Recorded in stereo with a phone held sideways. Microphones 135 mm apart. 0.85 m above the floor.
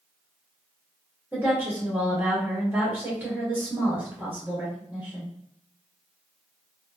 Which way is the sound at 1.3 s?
15° right (ahead or behind).